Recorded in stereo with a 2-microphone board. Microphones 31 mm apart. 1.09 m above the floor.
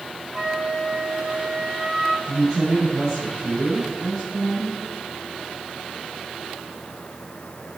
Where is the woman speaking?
25° right (ahead or behind), 5 m.